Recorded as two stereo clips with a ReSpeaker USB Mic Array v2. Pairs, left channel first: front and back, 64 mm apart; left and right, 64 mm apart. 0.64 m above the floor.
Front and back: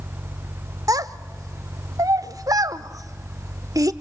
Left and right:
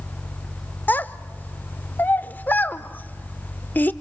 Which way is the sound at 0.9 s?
155° left.